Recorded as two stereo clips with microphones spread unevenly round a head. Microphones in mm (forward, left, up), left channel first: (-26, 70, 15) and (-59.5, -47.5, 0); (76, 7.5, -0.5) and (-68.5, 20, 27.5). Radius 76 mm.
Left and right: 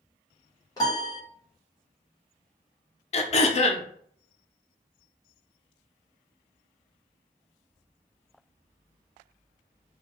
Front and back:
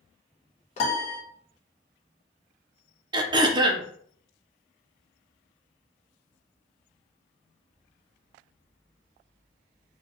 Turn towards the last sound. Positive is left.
turn(degrees=110)